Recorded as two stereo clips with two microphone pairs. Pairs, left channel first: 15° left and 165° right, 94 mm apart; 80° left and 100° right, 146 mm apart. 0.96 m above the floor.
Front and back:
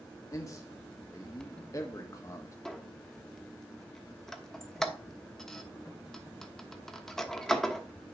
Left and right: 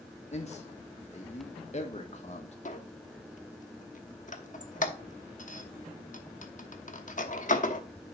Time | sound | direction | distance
0.3 | a man speaking | 65° left | 1.3 m
2.6 | a squeak | 105° left | 0.9 m